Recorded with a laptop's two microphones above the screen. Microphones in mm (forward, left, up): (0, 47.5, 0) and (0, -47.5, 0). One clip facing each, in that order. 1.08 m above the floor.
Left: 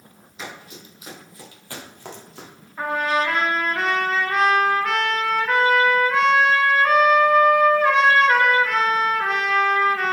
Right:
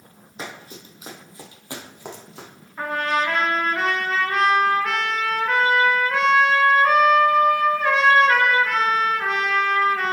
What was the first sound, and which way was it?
Running footsteps, 40° right (ahead or behind).